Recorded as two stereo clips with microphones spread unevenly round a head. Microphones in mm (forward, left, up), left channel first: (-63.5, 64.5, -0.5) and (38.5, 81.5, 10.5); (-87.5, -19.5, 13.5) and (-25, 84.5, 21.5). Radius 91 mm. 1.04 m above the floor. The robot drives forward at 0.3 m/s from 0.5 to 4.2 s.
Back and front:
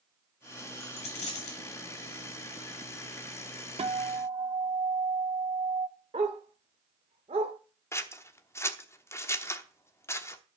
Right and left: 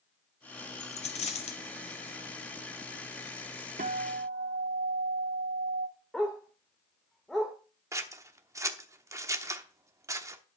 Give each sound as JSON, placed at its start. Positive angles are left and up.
{"t": 0.8, "sound": "a dropped coin", "azimuth_deg": -140, "distance_m": 1.2}
{"t": 3.8, "sound": "a guitar", "azimuth_deg": 30, "distance_m": 1.1}
{"t": 6.1, "sound": "a dog barking", "azimuth_deg": -30, "distance_m": 1.1}
{"t": 7.9, "sound": "scissors", "azimuth_deg": 125, "distance_m": 1.1}